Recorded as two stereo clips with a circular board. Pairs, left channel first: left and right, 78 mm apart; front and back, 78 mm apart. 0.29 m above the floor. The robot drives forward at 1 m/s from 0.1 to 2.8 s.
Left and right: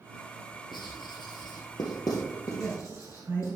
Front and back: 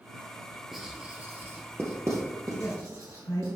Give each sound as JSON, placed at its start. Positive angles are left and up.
{"t": 0.7, "sound": "writing", "azimuth_deg": 90, "distance_m": 1.9}
{"t": 2.5, "sound": "a woman speaking", "azimuth_deg": -30, "distance_m": 3.5}